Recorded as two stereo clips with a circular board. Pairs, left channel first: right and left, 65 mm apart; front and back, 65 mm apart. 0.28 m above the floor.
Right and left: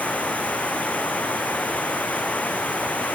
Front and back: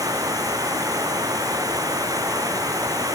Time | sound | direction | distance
0.0 | running water | 160° right | ?